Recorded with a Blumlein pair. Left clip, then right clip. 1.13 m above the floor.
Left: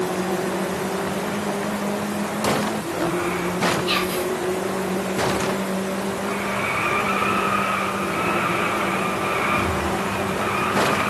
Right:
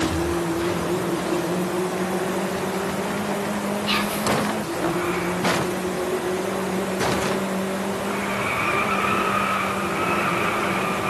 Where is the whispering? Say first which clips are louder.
Left 1 dB; straight ahead, 2.0 m.